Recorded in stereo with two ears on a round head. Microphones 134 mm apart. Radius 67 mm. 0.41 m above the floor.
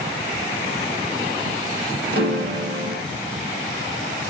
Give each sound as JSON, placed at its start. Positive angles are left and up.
{"t": 2.1, "sound": "a piano", "side_deg": -75, "distance_m": 1.4}